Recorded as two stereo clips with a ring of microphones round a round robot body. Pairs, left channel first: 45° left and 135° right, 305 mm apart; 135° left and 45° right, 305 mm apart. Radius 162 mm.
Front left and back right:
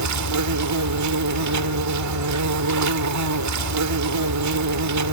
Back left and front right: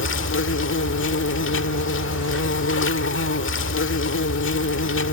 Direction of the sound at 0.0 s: 170° right.